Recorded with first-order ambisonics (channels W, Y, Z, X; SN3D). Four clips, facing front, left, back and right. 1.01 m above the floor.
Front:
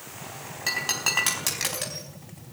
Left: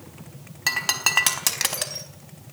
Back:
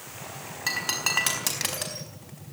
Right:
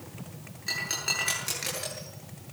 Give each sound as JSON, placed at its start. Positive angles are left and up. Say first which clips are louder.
{"t": 0.7, "sound": "breaking glass", "louder": "left 7 dB, front 1 dB", "azimuth_deg": 90, "distance_m": 4.5}